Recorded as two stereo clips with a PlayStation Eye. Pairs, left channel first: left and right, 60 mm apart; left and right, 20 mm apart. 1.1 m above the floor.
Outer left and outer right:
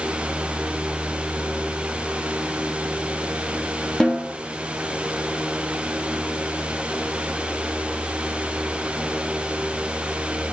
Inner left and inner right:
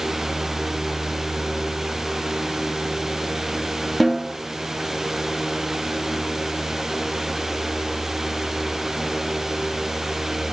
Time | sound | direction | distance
4.0 | a snare drum | 10° left (ahead or behind) | 1.6 m